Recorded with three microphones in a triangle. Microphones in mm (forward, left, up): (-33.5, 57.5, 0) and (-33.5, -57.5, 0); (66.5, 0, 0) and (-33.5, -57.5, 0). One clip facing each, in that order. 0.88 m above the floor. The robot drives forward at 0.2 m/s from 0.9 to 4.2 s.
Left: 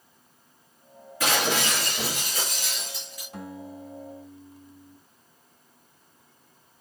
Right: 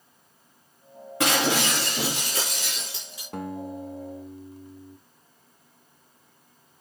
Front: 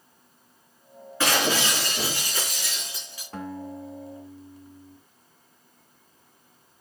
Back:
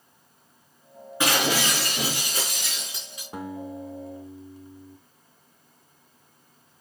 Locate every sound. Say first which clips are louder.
1.2 s breaking glass: right 2 dB, even; 75° right, 4.5 m; by 3.2 s 80° right, 4 m
3.3 s a guitar: right 6 dB, back 1 dB; 75° right, 0.9 m; by 5.0 s 85° right, 0.8 m